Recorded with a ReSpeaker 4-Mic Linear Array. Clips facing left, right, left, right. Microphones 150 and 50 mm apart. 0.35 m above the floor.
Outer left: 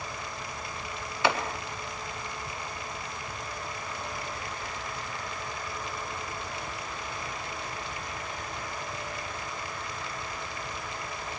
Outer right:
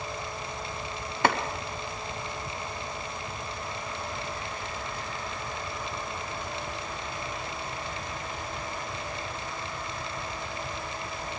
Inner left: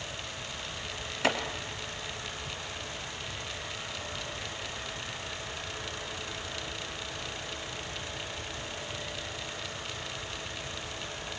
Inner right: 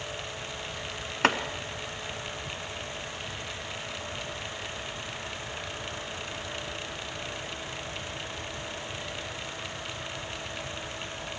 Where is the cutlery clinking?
I don't hear cutlery clinking.